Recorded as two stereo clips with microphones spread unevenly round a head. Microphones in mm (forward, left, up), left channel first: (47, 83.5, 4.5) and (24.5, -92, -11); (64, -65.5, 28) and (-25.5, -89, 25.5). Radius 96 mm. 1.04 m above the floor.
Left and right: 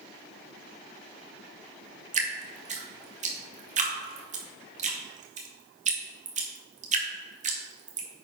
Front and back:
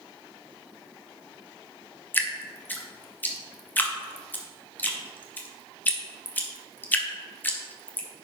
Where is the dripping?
55° right, 1.7 m.